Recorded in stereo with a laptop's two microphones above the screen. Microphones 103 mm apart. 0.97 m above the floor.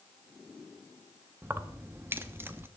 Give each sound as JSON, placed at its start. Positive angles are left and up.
{"t": 1.4, "sound": "keys jangling", "side_deg": -25, "distance_m": 0.7}